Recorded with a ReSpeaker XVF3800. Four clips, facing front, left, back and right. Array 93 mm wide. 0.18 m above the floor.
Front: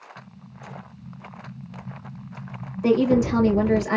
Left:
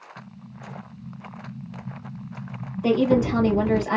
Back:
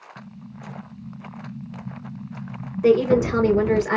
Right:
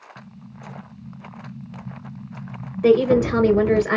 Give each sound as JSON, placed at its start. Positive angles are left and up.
{"t": 0.2, "sound": "an explosion", "azimuth_deg": -135, "distance_m": 2.5}
{"t": 2.8, "sound": "a woman speaking", "azimuth_deg": -120, "distance_m": 3.0}